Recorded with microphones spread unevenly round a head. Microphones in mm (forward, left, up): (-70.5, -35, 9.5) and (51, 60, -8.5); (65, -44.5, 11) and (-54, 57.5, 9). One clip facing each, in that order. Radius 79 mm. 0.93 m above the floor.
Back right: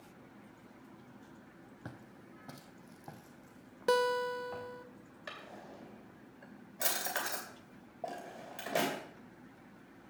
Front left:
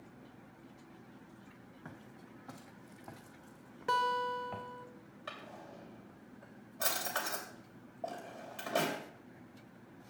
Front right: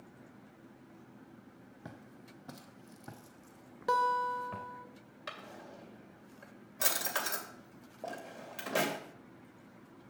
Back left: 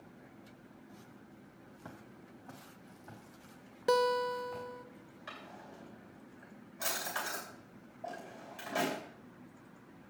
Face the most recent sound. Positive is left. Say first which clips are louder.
# even, front right 3 dB
turn(degrees=-65)